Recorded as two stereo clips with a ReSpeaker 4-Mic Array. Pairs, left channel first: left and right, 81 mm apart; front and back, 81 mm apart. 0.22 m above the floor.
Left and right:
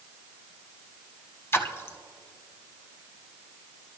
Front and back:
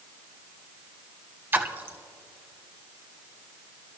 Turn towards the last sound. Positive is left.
turn(degrees=130)